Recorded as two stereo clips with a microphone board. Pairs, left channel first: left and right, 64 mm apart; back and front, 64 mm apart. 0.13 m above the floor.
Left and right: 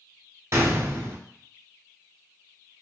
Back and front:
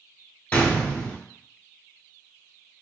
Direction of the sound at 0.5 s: 115° right.